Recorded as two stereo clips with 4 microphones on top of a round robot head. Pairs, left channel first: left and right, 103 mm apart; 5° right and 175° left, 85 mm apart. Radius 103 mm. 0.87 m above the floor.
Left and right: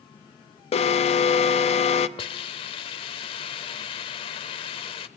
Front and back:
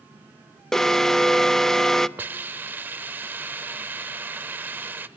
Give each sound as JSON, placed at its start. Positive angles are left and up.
{"t": 0.7, "sound": "an alarm", "azimuth_deg": 80, "distance_m": 1.0}
{"t": 2.2, "sound": "a hiss", "azimuth_deg": 115, "distance_m": 0.8}